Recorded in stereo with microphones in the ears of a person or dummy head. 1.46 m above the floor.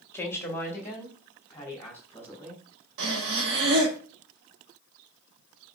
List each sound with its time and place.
0.1 s a woman speaking: 15° left (ahead or behind), 1.3 m
3.0 s breathing: 75° right (ahead or behind), 1.4 m